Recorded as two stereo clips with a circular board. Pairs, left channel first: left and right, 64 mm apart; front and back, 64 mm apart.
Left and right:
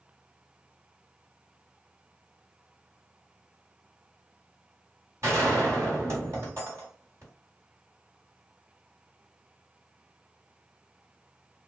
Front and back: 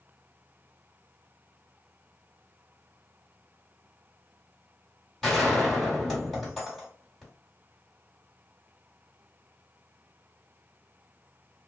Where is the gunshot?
90° right, 1.8 m.